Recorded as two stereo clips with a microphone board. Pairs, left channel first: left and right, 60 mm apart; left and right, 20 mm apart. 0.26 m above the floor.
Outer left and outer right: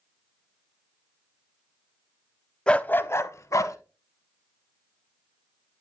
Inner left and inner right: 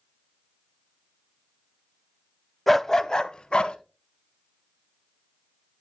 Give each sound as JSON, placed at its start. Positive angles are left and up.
{"t": 2.7, "sound": "a dog barking", "side_deg": 10, "distance_m": 0.5}